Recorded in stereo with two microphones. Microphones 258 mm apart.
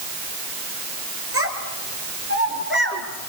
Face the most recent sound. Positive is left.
turn(degrees=-40)  # may be behind; listen again after turning